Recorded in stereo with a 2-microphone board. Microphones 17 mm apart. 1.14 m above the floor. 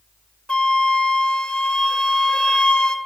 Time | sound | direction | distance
0.5 | a flute | 75° left (ahead or behind) | 0.6 m